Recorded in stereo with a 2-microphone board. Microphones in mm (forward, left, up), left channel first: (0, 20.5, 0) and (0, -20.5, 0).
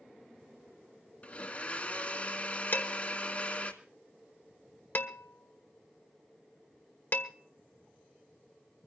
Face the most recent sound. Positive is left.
turn(degrees=55)  # may be behind; listen again after turning